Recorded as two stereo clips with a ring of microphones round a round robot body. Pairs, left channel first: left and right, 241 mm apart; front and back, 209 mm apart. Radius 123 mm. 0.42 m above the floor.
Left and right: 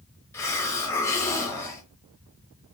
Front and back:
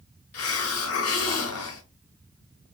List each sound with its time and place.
0.3 s a hiss: 10° left, 0.5 m